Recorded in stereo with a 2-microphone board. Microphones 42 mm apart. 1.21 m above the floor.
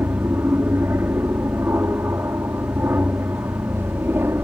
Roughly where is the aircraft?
Right.